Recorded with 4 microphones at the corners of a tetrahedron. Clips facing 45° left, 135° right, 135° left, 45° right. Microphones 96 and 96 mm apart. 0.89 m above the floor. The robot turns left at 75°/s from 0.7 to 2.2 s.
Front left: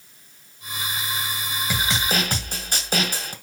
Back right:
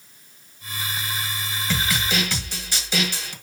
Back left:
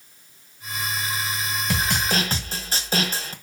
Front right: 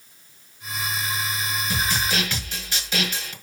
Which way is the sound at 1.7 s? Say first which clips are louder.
Even, back left 2 dB; 125° left.